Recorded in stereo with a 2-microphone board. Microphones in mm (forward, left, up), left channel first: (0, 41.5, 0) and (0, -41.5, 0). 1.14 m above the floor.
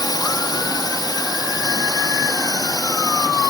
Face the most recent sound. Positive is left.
turn(degrees=55)  # may be behind; listen again after turning